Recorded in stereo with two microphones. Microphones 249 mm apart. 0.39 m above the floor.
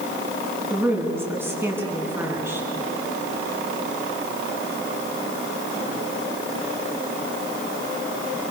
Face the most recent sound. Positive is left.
turn(degrees=-10)  # may be behind; listen again after turning